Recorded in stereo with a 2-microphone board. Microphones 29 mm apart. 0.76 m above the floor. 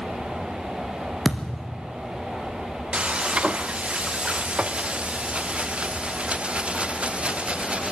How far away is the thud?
About 2.5 m.